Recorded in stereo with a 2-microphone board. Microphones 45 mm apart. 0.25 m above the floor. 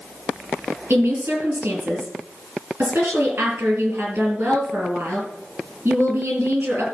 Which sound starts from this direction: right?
A woman speaking, at 0.9 s.